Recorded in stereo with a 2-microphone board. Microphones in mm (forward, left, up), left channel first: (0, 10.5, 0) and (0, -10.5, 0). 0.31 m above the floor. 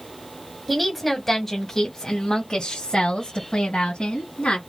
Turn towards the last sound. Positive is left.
turn(degrees=60)  # may be behind; listen again after turning